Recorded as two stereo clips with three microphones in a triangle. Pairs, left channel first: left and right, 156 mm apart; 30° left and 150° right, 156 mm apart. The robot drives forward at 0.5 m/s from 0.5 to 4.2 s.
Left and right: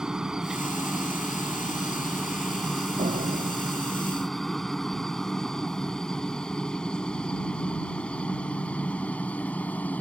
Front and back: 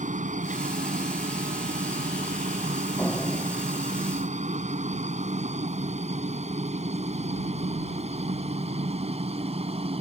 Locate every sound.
0.0 s a helicopter: 175° right; by 10.0 s 170° left
3.0 s a door slam: 50° right; by 4.3 s 55° right